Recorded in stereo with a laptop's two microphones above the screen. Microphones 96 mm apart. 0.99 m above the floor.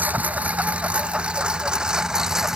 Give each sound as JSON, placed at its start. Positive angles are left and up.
{"t": 0.0, "sound": "a lawn mower", "side_deg": -15}